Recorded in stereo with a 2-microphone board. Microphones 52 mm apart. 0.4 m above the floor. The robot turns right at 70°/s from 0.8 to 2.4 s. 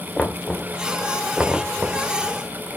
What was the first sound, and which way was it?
Knocking, 15° left (ahead or behind).